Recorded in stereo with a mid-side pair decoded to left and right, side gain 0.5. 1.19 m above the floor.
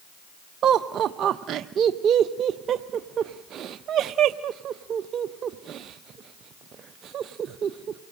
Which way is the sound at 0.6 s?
55° right.